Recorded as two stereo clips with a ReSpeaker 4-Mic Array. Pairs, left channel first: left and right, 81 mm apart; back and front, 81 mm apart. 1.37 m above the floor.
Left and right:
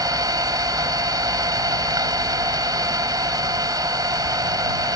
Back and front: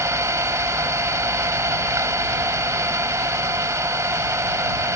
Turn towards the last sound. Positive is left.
turn(degrees=-50)